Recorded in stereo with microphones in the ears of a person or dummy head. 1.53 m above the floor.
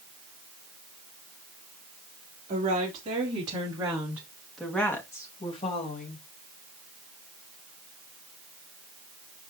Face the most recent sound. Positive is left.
turn(degrees=45)  # may be behind; listen again after turning